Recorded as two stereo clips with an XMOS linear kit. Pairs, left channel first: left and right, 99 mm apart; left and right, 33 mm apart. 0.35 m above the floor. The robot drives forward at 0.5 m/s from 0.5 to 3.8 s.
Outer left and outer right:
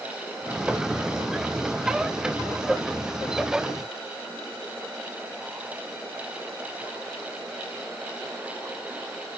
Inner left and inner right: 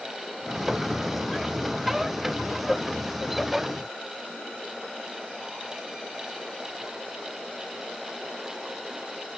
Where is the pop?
I don't hear a pop.